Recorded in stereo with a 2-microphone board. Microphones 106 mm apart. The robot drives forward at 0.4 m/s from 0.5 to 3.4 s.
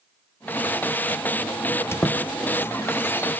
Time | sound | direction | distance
1.7 | a squeak | 20° left (ahead or behind) | 0.7 m